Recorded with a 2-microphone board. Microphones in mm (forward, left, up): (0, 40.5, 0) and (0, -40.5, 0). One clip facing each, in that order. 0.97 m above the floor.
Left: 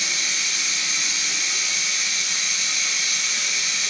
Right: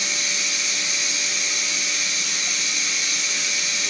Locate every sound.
0.0 s running water: 60° left (ahead or behind), 2.0 m